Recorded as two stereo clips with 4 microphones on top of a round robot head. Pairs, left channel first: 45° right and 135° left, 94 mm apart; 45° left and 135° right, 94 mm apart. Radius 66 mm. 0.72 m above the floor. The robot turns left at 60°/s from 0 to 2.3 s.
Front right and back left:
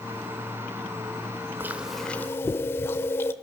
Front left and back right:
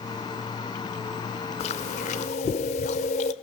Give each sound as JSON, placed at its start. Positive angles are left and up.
{"t": 1.6, "sound": "chewing", "azimuth_deg": 65, "distance_m": 0.7}